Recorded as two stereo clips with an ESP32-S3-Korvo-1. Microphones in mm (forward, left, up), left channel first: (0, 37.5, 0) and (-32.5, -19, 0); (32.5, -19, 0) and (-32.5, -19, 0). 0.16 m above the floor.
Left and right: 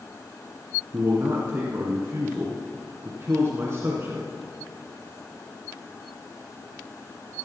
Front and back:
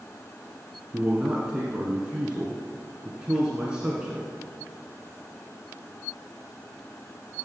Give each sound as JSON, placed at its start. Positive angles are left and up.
{"t": 0.9, "sound": "a man speaking", "azimuth_deg": -110, "distance_m": 1.4}